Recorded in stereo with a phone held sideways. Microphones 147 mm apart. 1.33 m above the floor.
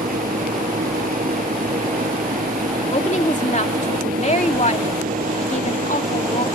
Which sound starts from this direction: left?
A woman speaking, at 2.9 s.